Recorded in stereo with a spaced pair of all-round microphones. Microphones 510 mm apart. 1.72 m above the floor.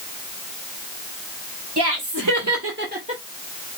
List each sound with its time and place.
1.8 s laughter: 50° right (ahead or behind), 1.4 m; by 3.2 s 10° right (ahead or behind), 1.3 m